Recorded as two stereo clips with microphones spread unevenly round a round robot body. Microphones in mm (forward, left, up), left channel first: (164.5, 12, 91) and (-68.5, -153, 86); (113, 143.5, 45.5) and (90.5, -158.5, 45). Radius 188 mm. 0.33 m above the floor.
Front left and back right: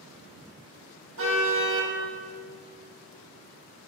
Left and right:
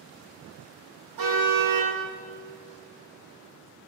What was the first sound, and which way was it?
A car horn, 100° right.